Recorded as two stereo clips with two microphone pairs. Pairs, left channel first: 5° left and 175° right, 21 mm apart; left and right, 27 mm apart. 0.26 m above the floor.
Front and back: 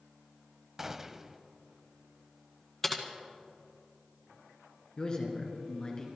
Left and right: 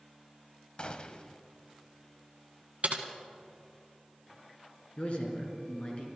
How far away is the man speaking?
About 3 m.